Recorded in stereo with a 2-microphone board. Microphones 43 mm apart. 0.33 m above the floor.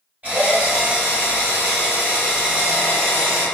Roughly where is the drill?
Right.